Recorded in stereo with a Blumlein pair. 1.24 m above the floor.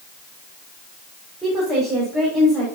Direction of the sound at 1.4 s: 10° right.